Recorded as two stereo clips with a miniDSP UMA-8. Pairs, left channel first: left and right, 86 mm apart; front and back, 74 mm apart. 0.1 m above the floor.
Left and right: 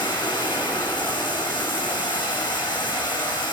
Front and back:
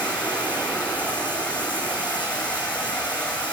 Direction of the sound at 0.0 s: 70° left.